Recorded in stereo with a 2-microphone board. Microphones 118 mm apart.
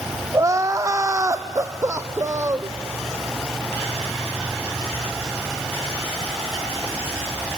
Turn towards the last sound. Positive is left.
turn(degrees=-25)  # may be behind; listen again after turning